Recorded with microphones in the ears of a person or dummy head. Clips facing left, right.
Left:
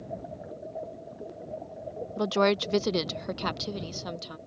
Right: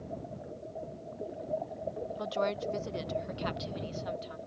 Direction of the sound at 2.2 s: 50° left (ahead or behind).